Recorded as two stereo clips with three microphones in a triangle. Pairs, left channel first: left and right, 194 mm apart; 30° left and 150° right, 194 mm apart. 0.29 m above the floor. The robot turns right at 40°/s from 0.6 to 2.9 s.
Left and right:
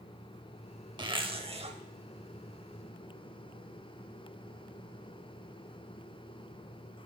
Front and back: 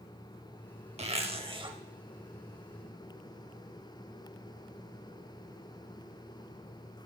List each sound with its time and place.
1.0 s a zipper: 135° right, 0.7 m; by 1.8 s 105° right, 0.7 m